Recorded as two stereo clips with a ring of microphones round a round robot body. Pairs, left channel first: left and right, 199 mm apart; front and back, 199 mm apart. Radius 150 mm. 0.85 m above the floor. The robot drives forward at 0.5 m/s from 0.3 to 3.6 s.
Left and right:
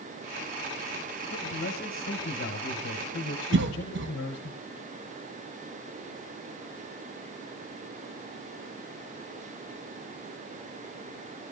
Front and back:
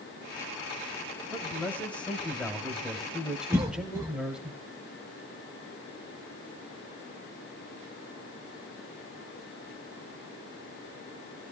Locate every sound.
1.3 s a man speaking: 75° left, 4 m; by 4.5 s 90° left, 4 m
3.5 s a cough: 100° right, 1.1 m; by 4.1 s 105° right, 1.1 m